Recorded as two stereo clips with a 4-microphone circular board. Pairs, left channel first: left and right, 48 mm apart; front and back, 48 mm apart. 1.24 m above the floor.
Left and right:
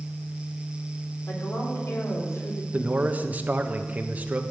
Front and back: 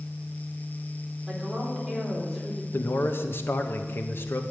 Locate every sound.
1.3 s a woman speaking: 90° left, 4 m
2.7 s a man speaking: 35° right, 1.2 m